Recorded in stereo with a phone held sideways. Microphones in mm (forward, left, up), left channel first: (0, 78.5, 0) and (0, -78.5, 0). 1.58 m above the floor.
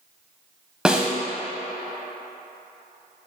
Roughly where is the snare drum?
Centre.